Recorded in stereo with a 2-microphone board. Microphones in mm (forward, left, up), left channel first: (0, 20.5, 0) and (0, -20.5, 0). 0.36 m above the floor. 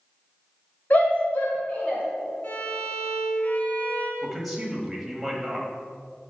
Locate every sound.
0.9 s a shout: 45° left (ahead or behind), 1.7 m; by 2.0 s 35° left (ahead or behind), 1.7 m
2.4 s a violin: 45° left (ahead or behind), 1.2 m
4.2 s a man speaking: 5° right (ahead or behind), 1.6 m